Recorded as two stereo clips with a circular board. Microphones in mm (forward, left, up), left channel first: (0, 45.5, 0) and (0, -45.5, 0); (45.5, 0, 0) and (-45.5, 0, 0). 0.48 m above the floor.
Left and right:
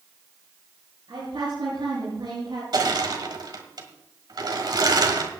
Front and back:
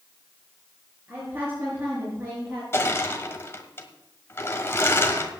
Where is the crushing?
60° right, 1.6 m.